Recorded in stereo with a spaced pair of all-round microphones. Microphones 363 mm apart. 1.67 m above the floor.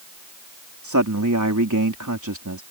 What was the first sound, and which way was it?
A man speaking, 55° right (ahead or behind).